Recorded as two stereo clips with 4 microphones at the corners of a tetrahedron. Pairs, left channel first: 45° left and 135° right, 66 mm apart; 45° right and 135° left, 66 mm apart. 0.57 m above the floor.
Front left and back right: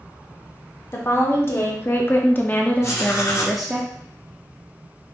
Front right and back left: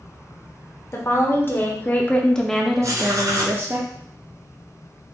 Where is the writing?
95° left, 1.9 m.